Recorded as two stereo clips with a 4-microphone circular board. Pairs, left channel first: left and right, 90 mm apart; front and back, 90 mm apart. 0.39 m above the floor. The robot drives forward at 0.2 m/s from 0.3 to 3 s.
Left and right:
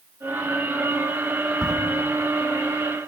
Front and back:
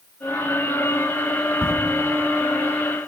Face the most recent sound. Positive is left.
turn(degrees=-175)